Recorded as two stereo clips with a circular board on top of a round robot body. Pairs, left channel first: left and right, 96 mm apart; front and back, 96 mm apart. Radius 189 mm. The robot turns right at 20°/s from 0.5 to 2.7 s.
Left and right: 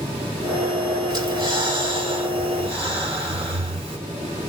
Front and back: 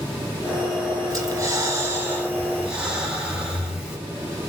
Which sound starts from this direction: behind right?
Breathing, at 1.1 s.